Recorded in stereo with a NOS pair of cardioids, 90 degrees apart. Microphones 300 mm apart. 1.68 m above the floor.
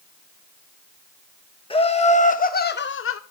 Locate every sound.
1.7 s laughter: 20° left, 1.9 m; by 3.2 s 50° left, 1.1 m